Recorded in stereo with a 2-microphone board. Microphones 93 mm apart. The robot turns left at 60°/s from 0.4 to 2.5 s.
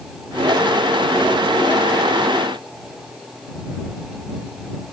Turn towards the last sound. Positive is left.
No sound to turn to.